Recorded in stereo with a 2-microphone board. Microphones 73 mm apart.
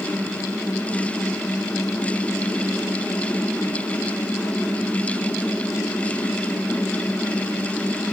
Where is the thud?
No thud in this recording.